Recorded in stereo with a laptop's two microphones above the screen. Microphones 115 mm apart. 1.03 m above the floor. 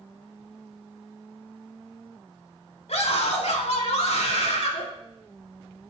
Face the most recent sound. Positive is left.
turn(degrees=70)  # may be behind; listen again after turning